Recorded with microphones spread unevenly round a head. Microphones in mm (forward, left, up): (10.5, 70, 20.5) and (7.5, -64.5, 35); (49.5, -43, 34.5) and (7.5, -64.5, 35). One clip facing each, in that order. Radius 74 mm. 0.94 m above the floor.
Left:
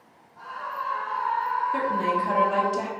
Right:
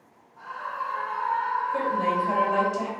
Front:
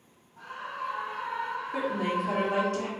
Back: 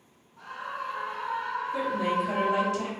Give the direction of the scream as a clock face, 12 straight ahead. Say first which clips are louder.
Even, back 1 dB; 10 o'clock.